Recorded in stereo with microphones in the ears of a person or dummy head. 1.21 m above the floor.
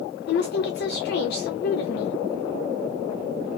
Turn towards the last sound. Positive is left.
turn(degrees=60)  # may be behind; listen again after turning